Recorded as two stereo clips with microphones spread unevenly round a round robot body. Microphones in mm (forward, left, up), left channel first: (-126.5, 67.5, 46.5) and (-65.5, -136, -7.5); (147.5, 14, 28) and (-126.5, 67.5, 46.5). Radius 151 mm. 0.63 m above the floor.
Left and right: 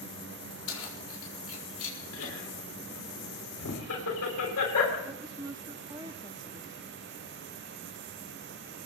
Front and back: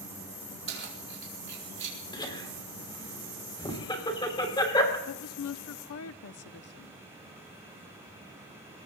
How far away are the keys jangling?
About 5 m.